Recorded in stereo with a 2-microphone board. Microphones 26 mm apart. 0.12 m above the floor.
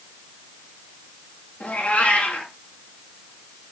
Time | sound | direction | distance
1.6 | a cat meowing | 85° left | 7 m